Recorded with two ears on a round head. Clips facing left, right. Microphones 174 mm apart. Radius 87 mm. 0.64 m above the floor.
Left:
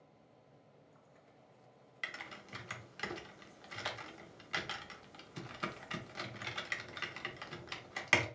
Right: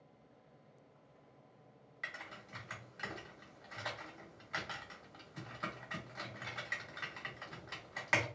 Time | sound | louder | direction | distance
2.0 | typing on a keyboard | left 1 dB | 40° left (ahead or behind) | 0.6 m